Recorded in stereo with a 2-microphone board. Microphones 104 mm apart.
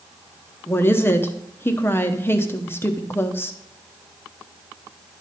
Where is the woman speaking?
25° left (ahead or behind), 0.9 m.